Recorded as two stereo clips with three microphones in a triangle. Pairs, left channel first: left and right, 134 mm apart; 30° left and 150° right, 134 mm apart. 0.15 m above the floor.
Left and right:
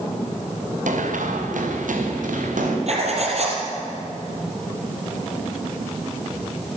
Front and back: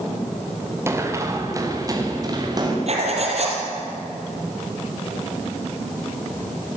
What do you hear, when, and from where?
0.9 s running footsteps: 80° right, 4 m; by 2.8 s 90° right, 6.5 m
2.9 s writing: 120° right, 4.5 m